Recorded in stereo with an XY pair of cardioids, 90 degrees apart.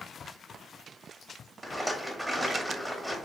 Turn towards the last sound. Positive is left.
turn(degrees=-5)